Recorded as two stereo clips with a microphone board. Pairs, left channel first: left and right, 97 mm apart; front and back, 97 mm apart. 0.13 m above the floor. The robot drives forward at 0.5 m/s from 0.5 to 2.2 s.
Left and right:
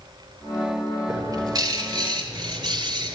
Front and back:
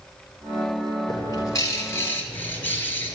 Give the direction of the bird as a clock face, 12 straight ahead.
1 o'clock.